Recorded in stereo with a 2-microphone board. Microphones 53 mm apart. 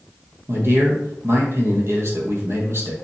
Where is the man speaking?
55° right (ahead or behind), 2.5 m.